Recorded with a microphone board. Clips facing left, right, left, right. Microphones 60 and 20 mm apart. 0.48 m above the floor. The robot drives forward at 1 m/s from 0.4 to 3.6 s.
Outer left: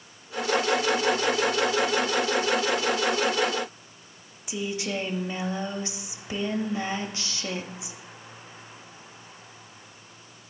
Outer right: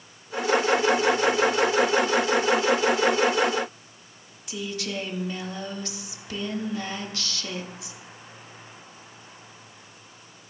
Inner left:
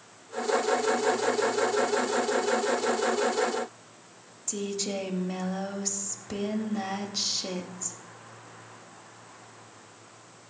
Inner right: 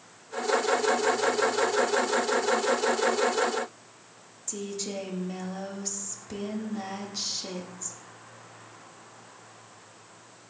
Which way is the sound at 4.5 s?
20° left (ahead or behind).